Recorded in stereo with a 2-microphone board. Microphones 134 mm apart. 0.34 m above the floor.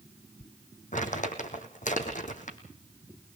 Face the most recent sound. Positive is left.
turn(degrees=70)  # may be behind; listen again after turning